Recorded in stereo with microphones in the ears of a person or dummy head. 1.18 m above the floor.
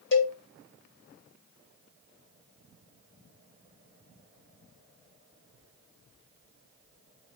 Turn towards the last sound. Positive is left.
turn(degrees=65)  # may be behind; listen again after turning